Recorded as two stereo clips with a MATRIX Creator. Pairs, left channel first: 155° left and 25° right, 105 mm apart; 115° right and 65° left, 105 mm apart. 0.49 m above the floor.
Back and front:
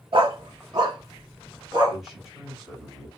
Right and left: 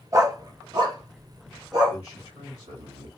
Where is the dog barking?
10° left, 0.6 m; by 2.0 s 25° left, 1.7 m.